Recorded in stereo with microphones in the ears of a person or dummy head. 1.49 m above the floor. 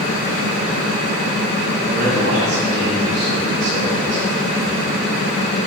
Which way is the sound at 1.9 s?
70° right (ahead or behind).